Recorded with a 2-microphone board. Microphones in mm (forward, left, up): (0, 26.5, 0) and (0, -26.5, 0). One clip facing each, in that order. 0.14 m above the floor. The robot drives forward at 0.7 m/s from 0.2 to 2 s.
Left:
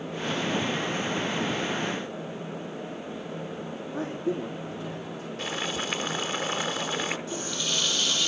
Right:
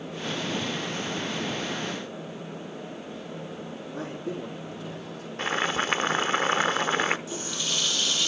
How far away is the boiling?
About 0.7 m.